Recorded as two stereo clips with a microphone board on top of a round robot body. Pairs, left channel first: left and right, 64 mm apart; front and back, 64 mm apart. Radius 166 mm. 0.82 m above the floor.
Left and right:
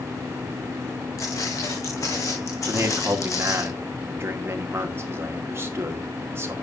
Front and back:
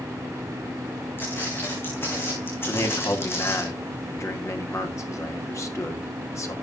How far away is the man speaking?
About 2.5 m.